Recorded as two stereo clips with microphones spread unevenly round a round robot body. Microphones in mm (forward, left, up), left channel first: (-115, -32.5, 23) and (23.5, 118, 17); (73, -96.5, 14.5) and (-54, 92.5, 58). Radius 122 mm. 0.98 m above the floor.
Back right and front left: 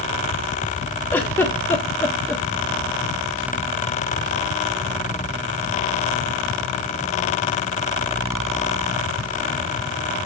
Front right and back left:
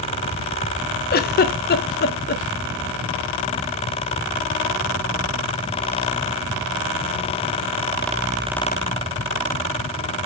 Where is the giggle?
50° right, 1.2 m.